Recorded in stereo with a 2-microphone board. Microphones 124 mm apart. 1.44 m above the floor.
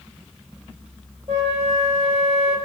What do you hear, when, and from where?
1.3 s a flute: 50° right (ahead or behind), 1.5 m